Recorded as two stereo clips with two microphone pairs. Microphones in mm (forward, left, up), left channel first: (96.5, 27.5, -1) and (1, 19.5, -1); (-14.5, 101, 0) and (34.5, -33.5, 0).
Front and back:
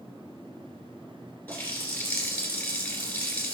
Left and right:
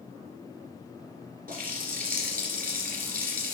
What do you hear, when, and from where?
1.5 s a running tap: 60° right, 2 m